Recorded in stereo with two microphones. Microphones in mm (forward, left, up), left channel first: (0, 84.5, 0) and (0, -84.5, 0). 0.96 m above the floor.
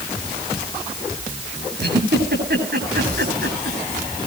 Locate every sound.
1.8 s a giggle: 85° right, 8 m